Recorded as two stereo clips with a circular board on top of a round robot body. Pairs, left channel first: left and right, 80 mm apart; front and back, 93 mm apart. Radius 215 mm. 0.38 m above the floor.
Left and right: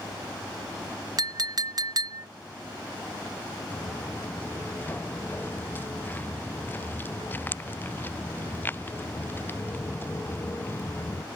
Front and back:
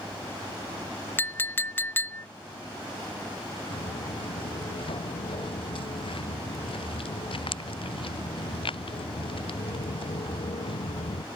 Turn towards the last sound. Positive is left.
turn(degrees=25)